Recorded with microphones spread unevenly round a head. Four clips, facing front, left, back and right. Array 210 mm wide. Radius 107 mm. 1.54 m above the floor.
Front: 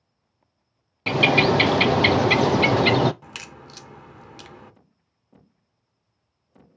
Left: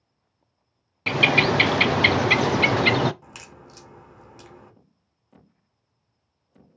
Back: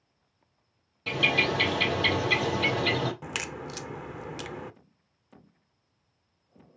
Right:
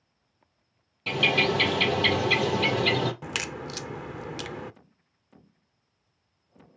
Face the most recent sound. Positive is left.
turn(degrees=-110)